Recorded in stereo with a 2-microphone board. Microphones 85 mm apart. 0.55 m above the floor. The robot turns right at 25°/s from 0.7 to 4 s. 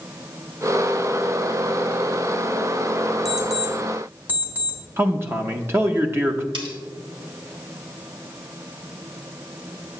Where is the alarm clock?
Centre (ahead or behind), 2 m; by 4.8 s 20° right (ahead or behind), 2 m.